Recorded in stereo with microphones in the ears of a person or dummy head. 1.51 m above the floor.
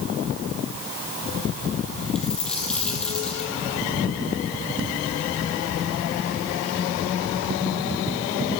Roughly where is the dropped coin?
Centre.